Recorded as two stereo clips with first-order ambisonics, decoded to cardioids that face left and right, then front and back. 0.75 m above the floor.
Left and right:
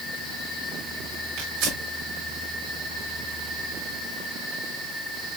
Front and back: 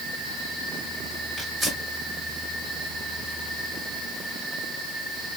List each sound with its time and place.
1.4 s tearing paper: 95° right, 4 m